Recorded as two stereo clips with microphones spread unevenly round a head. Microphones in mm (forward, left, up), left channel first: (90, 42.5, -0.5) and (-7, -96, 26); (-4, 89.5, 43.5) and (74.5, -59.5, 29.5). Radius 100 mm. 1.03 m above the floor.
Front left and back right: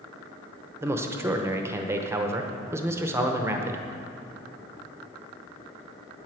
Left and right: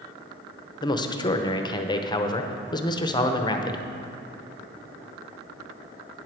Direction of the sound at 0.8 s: 160° left.